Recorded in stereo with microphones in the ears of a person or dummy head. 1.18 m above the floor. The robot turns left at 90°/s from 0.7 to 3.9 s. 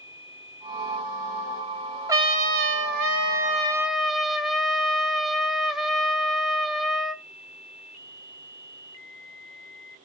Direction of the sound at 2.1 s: 15° right.